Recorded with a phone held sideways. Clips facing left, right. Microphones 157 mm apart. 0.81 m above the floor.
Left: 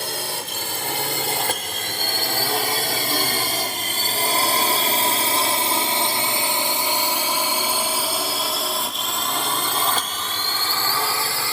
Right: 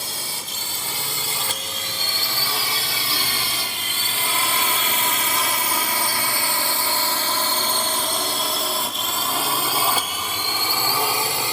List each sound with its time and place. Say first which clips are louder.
0.0 s a drone: left 6 dB; 65° left (ahead or behind); by 11.5 s 20° right (ahead or behind)